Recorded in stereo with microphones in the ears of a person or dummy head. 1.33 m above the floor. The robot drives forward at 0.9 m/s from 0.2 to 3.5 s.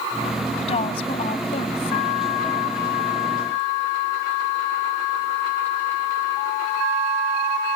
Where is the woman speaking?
30° left (ahead or behind); by 2.1 s 35° left (ahead or behind).